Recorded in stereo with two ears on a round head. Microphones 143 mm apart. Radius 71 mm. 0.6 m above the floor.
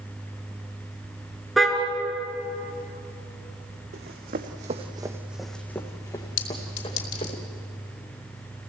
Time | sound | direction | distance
1.6 | a car horn | centre (ahead or behind) | 3.5 m
3.9 | running footsteps | 75° right (ahead or behind) | 2 m
6.4 | a clink | 75° left (ahead or behind) | 3 m